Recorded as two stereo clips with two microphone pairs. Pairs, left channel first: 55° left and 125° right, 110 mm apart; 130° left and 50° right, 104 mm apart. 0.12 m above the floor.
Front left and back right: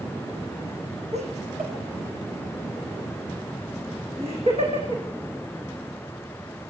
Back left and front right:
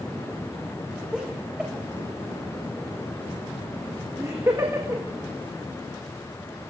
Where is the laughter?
135° right, 6.5 m; by 5.0 s 100° right, 6.5 m.